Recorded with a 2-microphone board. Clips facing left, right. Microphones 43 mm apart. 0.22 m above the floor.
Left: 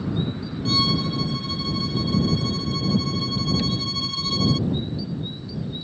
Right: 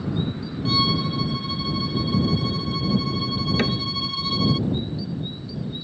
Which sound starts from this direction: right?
A cupboard door, at 3.6 s.